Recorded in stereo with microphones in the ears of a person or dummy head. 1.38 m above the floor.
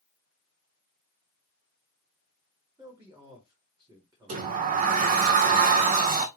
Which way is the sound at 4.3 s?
45° right (ahead or behind).